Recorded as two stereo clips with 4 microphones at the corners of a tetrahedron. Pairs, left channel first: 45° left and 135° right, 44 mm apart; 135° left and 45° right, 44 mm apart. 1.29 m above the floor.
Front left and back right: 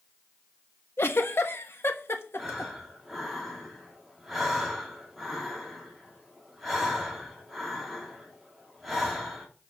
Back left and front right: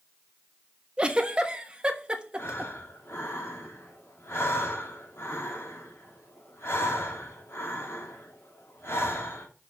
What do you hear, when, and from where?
1.0 s a giggle: 20° left, 1.2 m
2.4 s breathing: 135° left, 3.5 m